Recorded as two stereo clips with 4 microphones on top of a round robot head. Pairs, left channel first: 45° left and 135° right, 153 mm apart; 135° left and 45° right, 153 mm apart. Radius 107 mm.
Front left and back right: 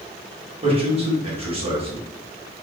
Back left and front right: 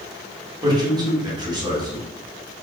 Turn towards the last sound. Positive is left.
turn(degrees=-100)